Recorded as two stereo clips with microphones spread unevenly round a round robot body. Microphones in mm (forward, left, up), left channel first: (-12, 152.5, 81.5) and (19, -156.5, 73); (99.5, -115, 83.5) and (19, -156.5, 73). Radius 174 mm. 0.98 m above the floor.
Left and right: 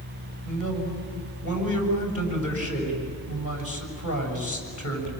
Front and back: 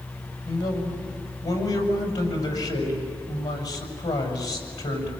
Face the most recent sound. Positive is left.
turn(degrees=50)